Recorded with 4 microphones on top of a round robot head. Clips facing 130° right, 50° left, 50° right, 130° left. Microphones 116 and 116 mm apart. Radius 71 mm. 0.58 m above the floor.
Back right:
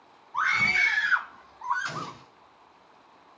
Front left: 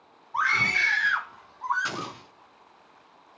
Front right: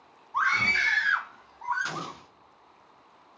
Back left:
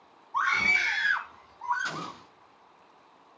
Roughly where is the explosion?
Ahead left.